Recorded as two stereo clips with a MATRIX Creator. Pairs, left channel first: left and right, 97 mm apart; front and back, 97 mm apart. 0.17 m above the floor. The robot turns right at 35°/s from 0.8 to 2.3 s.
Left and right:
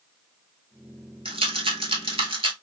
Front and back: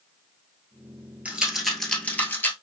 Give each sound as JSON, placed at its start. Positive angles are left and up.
{"t": 1.2, "sound": "a rattle", "azimuth_deg": -105, "distance_m": 0.9}